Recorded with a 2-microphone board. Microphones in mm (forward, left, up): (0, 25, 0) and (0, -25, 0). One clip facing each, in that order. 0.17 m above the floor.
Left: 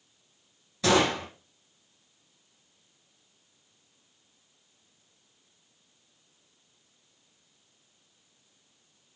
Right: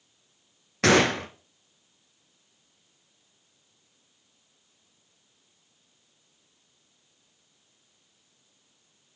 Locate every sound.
0.8 s a gunshot: 65° right (ahead or behind), 1.1 m